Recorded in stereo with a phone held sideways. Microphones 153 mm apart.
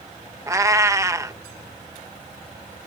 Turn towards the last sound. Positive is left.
turn(degrees=-20)  # may be behind; listen again after turning